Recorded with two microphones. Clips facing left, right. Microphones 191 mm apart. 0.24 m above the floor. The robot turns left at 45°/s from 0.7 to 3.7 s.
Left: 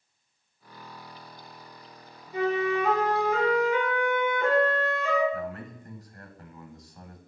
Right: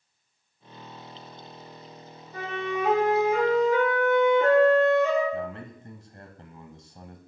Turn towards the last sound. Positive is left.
turn(degrees=-25)  # may be behind; listen again after turning